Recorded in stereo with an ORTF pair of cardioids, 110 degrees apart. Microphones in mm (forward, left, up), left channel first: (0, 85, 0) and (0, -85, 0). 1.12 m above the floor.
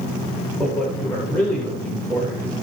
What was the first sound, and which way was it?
A man speaking, 5° left.